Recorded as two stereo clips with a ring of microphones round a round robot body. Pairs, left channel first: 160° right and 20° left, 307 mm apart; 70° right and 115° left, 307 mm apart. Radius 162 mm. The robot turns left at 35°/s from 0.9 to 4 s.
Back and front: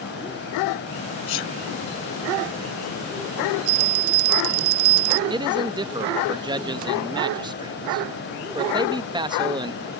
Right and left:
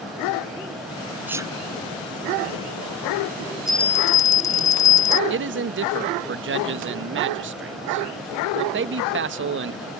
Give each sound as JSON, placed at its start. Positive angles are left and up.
{"t": 1.3, "sound": "a sneeze", "azimuth_deg": -160}
{"t": 3.7, "sound": "a bell", "azimuth_deg": 25}
{"t": 5.3, "sound": "a man speaking", "azimuth_deg": 90}